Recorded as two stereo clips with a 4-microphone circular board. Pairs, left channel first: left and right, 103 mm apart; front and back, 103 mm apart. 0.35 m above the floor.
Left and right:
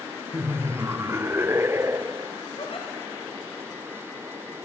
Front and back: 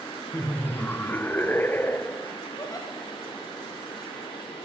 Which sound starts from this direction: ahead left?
A giggle, at 2.6 s.